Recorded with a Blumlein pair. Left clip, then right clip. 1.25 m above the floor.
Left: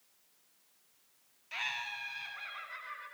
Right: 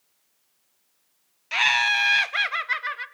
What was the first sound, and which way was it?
Laughter, 55° right.